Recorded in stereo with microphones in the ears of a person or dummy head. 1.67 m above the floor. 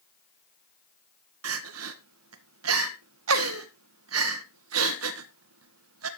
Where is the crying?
85° right, 1.3 m.